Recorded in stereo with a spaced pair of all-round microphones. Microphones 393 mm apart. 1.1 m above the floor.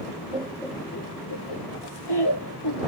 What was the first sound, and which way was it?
Laughter, 20° right (ahead or behind).